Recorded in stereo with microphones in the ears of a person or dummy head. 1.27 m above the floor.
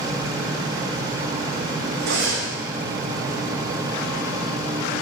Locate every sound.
2.0 s cutlery clinking: 65° right (ahead or behind), 0.9 m